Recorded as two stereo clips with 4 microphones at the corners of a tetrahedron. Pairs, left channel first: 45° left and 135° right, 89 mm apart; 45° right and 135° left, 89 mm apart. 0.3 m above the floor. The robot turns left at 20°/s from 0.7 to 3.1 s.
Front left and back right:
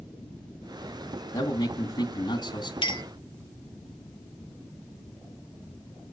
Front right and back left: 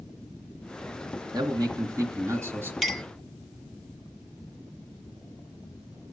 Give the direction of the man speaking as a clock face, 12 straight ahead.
9 o'clock.